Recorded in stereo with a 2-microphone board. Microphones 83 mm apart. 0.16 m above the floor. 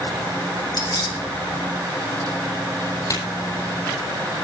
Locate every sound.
0.7 s keys jangling: 60° left (ahead or behind), 3 m
3.1 s a crack: 45° left (ahead or behind), 7 m